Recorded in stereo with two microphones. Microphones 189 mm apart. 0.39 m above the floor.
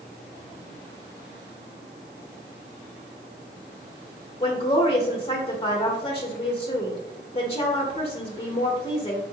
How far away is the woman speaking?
About 0.9 m.